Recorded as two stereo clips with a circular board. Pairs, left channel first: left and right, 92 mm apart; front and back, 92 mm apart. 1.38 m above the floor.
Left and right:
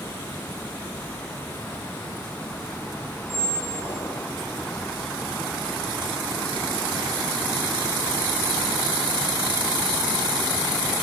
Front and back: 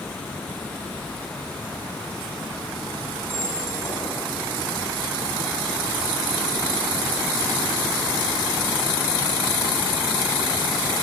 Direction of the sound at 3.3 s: 25° left.